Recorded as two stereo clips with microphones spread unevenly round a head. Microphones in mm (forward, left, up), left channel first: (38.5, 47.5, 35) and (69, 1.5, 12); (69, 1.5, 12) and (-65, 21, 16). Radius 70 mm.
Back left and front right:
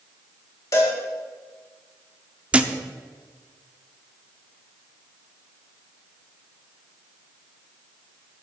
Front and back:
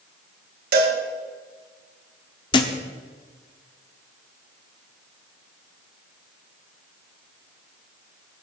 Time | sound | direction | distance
0.7 | a cowbell | 175° right | 1.6 m
2.5 | a thud | 35° left | 1.0 m